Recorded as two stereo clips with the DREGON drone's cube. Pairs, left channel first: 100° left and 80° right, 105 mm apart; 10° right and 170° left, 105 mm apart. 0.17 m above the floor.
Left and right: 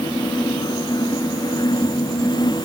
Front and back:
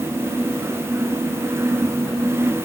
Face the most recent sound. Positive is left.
No sound to turn to.